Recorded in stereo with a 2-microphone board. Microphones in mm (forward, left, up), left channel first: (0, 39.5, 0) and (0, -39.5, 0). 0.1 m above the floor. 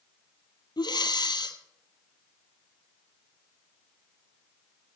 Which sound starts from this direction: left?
Breathing, at 0.8 s.